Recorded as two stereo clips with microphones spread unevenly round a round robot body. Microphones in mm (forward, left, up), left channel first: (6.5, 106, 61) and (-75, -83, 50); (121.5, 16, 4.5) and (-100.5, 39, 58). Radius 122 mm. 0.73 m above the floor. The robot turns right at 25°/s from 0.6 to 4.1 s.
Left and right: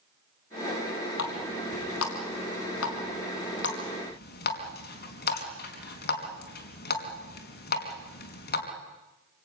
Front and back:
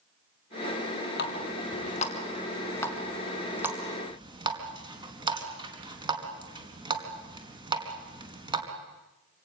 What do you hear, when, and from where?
1.2 s a running tap: 35° left, 4.5 m; by 8.6 s 105° left, 4.5 m